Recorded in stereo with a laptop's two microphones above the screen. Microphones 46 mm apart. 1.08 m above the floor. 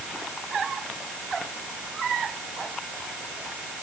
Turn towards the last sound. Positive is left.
No sound to turn to.